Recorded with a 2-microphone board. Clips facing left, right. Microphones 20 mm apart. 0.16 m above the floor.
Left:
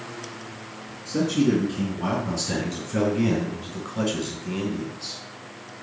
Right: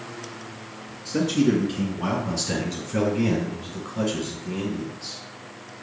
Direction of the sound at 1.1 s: 35° right (ahead or behind).